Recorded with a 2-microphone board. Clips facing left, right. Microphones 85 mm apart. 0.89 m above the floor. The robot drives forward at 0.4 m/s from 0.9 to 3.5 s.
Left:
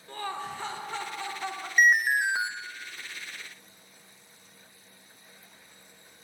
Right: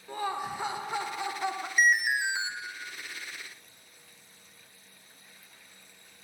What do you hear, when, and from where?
0.1 s laughter: 15° right (ahead or behind), 0.7 m
1.8 s an alarm: 45° left (ahead or behind), 0.7 m; by 2.5 s 40° left (ahead or behind), 0.8 m